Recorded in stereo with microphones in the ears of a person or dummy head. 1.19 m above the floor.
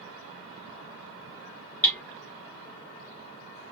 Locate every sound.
1.8 s hammering: 5° left (ahead or behind), 1.2 m